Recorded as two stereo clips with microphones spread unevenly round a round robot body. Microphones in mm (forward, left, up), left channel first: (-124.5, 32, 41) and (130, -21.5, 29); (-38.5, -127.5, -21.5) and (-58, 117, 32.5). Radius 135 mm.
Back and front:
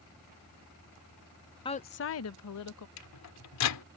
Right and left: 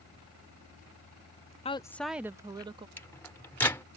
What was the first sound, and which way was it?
A woman speaking, 125° right.